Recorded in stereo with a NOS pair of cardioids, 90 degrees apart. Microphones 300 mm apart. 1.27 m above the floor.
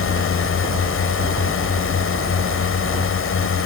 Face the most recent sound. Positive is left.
turn(degrees=45)